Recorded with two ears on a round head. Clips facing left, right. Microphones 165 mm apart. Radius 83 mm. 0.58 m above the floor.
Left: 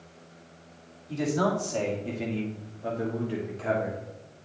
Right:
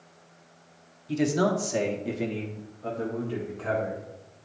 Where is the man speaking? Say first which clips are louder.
Right 2 dB; 30° right (ahead or behind), 1.3 m; by 4.1 s 35° left (ahead or behind), 1.6 m.